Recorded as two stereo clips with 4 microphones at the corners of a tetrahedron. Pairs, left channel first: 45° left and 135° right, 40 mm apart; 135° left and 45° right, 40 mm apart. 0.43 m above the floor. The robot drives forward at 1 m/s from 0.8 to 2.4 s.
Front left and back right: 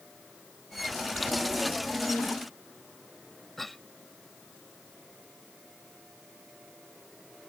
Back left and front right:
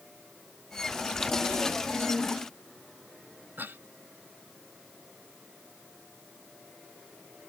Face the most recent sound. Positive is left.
turn(degrees=-40)